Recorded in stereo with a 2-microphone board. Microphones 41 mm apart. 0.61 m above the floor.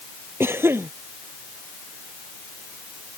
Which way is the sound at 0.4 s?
85° right.